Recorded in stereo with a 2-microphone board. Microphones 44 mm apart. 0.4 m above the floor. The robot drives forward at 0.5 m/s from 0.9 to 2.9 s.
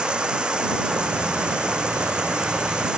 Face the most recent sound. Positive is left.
turn(degrees=-20)  # may be behind; listen again after turning